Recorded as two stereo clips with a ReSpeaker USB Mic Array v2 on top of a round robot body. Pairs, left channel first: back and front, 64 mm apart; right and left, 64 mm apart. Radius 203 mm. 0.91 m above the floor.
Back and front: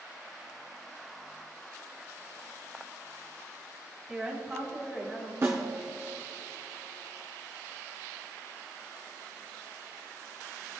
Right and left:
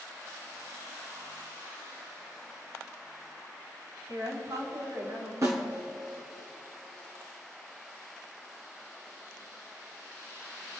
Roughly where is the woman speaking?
Left.